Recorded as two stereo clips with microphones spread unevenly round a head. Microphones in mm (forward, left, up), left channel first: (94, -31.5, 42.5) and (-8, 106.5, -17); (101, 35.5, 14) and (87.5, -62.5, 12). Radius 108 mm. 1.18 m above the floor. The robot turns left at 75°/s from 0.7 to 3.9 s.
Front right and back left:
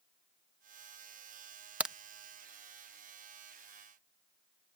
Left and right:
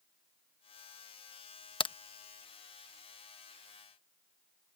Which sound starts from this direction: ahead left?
A crack, at 1.8 s.